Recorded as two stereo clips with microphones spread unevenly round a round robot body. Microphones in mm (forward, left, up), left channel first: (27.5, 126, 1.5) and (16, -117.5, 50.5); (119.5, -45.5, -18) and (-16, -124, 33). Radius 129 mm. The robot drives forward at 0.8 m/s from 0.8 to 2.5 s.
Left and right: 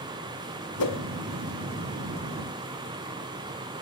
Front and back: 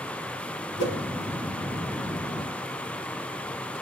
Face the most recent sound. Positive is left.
turn(degrees=110)